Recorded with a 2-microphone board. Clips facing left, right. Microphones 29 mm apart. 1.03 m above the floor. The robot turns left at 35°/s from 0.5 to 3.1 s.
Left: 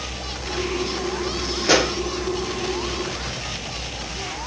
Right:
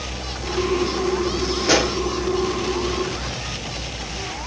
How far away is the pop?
About 1.9 m.